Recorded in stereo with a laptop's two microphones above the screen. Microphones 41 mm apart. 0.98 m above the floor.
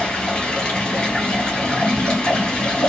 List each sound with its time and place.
0.0 s running water: 15° left (ahead or behind), 2 m